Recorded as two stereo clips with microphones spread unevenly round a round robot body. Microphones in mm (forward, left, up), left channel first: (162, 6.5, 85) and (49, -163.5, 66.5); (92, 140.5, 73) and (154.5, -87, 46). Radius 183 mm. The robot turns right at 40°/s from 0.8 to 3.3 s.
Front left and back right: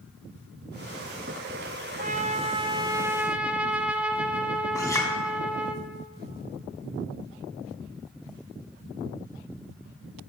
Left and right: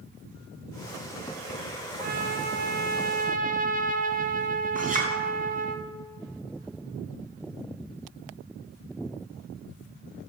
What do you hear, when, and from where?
2.0 s a trumpet: 100° right, 1.2 m; by 5.8 s 45° right, 1.2 m
4.8 s a clink: 20° right, 3.5 m